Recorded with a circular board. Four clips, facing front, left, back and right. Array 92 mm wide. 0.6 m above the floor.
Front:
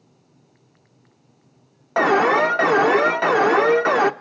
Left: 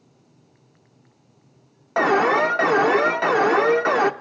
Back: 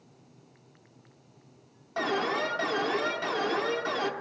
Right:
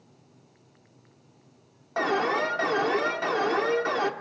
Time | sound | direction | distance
2.0 | an alarm | 30° left | 0.8 m